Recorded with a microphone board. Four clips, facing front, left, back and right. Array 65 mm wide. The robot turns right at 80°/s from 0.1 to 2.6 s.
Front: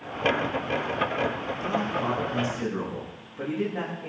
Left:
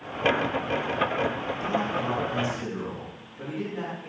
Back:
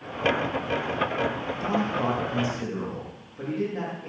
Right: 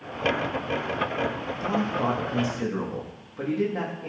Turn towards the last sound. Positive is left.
turn(degrees=-75)